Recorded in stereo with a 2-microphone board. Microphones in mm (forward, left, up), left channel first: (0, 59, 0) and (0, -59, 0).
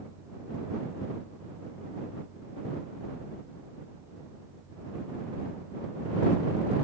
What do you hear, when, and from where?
Only background noise.